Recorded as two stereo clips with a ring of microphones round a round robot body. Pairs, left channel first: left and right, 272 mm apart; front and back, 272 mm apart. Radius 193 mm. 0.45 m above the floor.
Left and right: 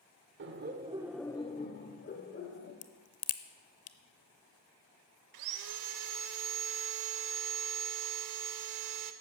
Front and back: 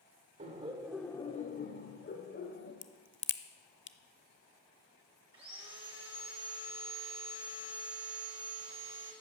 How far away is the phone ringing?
No phone ringing in this recording.